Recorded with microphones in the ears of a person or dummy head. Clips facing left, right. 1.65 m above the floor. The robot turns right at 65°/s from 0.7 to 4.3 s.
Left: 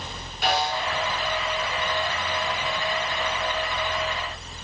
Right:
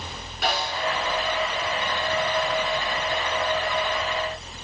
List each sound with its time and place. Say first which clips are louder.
0.4 s a snare drum: left 2 dB; 55° right (ahead or behind), 6.5 m; by 0.8 s 65° right (ahead or behind), 6.5 m